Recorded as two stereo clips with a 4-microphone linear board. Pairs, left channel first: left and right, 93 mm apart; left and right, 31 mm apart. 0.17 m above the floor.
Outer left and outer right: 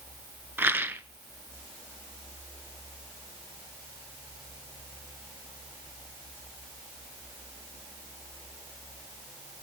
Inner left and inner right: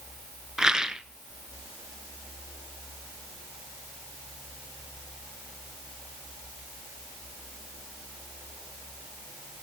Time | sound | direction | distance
0.6 | a rattle | 20° right (ahead or behind) | 0.6 m